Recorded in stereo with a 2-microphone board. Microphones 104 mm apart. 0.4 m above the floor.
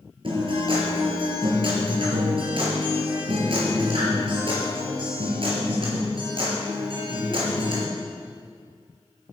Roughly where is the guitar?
Right.